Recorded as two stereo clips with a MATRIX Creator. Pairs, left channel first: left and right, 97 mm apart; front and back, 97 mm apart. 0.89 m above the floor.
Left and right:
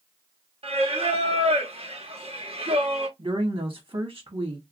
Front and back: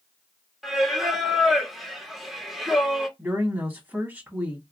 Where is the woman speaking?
115° right, 1.2 m.